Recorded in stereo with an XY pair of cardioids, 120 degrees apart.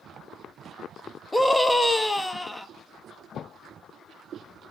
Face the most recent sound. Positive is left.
turn(degrees=10)